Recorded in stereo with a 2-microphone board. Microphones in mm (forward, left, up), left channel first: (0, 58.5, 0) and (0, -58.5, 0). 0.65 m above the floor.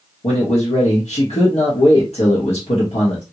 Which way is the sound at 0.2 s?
60° left (ahead or behind).